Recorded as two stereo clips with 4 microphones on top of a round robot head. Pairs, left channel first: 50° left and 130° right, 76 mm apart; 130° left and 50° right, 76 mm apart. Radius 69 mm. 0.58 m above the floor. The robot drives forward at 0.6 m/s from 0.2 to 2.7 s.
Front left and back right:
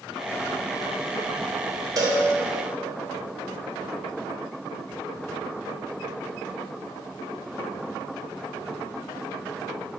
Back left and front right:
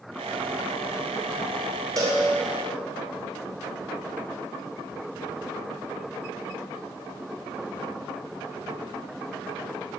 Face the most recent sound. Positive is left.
turn(degrees=-100)